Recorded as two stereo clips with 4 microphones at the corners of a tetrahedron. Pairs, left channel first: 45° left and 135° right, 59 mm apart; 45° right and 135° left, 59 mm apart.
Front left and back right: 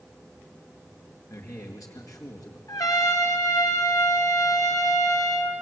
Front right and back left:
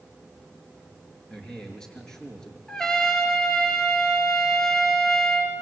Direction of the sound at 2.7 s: 35° left.